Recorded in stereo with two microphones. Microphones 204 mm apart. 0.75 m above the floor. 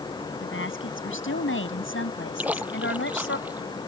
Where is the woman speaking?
85° left; by 3.4 s 80° left.